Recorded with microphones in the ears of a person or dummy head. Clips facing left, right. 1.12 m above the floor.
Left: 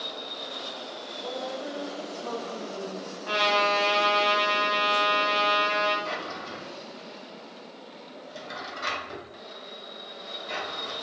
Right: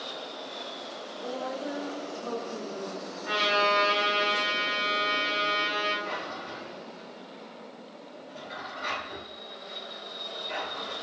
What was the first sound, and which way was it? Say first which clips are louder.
A woman speaking: even; 25° right (ahead or behind).